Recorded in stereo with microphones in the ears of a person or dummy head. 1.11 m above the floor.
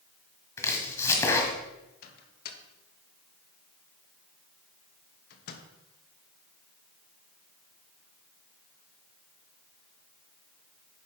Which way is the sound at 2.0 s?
60° left (ahead or behind).